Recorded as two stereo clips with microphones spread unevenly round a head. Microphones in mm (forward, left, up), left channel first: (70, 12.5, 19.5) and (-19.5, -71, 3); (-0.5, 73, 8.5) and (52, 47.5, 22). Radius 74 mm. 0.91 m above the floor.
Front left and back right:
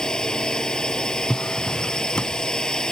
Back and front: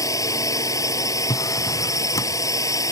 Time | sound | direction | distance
0.0 | a drone | 130° left | ?
1.3 | a drawer | 125° left | ?